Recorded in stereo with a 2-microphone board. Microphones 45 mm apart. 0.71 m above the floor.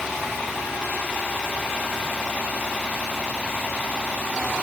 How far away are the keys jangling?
I don't hear keys jangling.